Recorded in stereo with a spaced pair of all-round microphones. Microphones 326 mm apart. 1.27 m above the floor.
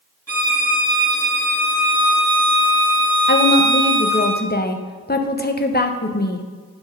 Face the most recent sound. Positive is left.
turn(degrees=30)  # may be behind; listen again after turning